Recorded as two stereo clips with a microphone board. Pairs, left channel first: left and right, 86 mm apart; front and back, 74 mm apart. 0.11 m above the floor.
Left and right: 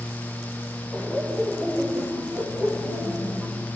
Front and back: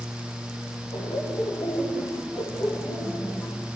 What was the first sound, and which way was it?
Laughter, 20° left.